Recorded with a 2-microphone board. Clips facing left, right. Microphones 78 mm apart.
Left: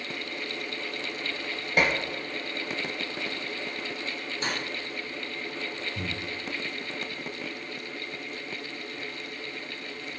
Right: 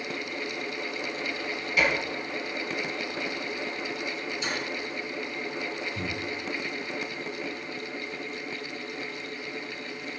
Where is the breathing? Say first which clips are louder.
Right 2 dB; centre (ahead or behind), 1.1 m.